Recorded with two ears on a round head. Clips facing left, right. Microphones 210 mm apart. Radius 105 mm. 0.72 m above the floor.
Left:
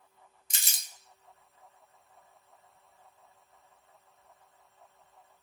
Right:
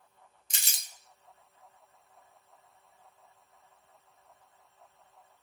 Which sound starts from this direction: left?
Crumpling, at 0.5 s.